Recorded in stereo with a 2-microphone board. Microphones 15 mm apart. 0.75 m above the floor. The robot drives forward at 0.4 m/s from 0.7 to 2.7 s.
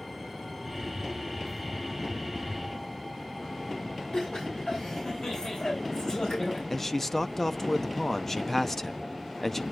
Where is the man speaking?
30° left (ahead or behind), 0.6 m.